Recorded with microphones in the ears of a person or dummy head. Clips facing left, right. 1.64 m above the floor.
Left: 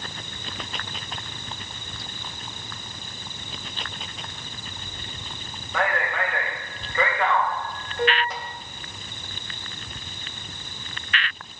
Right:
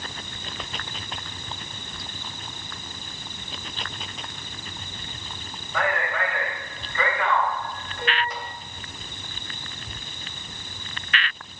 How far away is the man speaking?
About 3.5 m.